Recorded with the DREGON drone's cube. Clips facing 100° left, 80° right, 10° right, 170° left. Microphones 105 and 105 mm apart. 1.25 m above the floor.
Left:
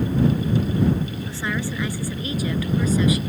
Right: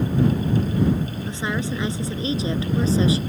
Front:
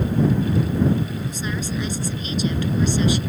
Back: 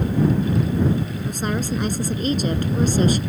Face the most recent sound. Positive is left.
turn(degrees=-140)